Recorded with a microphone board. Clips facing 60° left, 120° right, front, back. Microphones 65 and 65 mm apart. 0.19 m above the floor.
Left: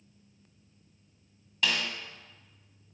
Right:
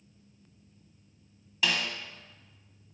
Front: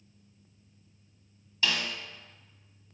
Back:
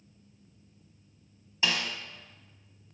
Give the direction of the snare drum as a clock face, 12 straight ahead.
7 o'clock.